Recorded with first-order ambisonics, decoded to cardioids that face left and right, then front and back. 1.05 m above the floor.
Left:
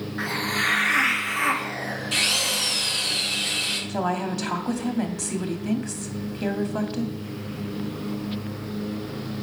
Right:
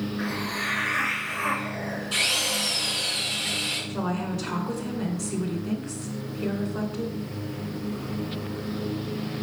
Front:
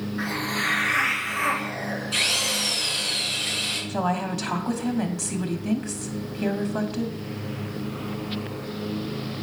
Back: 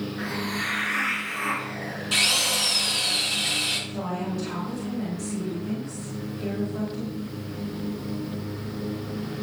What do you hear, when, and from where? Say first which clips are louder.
0.2 s a hiss: left 7 dB, front 4 dB; 80° left, 2 m
2.1 s a drill: left 2 dB, back 2 dB; 155° left, 6 m
3.9 s a woman speaking: left 4 dB, front 5 dB; 50° left, 2.5 m